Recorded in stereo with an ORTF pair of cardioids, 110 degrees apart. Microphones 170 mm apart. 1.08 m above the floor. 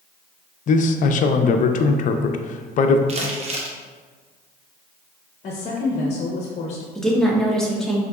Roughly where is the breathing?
I don't hear breathing.